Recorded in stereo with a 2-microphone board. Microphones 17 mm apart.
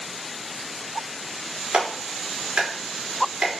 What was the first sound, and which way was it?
A clap, 90° right.